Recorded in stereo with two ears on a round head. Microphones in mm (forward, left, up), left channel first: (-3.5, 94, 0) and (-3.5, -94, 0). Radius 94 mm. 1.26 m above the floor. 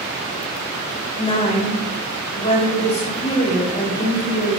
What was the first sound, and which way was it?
A woman speaking, 30° left (ahead or behind).